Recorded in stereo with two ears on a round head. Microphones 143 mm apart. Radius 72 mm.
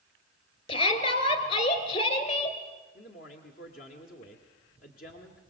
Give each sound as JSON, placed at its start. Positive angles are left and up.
{"t": 0.7, "sound": "a shout", "side_deg": 40, "distance_m": 3.0}
{"t": 3.0, "sound": "a man speaking", "side_deg": 55, "distance_m": 1.8}